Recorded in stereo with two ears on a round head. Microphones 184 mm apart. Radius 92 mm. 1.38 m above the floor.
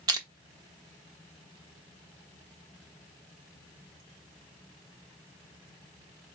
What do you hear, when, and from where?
0.1 s crushing: 20° right (ahead or behind), 1.0 m